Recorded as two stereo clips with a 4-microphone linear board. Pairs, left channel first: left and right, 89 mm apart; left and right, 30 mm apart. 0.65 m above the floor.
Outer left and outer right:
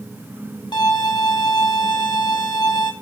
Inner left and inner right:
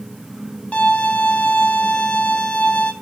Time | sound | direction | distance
0.7 | a violin | 55° left (ahead or behind) | 2.5 m